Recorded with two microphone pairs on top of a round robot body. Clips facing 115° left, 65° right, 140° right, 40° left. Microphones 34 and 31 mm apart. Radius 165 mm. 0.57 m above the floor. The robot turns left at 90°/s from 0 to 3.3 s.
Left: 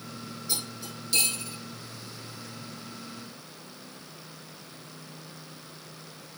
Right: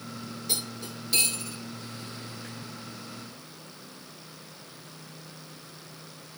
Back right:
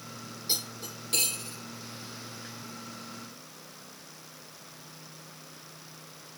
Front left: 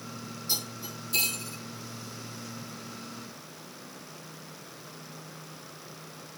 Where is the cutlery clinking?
85° right, 7 m; by 1.6 s 175° left, 7 m.